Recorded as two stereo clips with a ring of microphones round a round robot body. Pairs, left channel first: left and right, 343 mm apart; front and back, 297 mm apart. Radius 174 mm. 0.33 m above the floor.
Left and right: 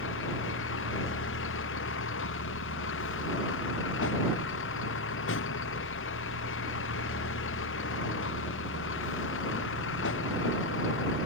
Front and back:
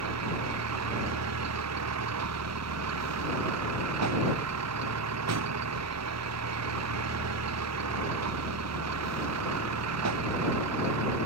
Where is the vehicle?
145° left.